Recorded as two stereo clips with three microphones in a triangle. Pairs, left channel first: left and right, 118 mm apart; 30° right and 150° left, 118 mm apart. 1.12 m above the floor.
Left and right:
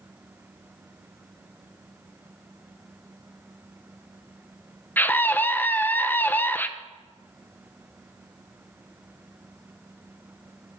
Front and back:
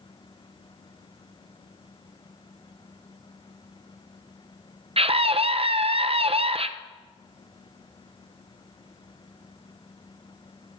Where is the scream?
160° left, 0.5 m.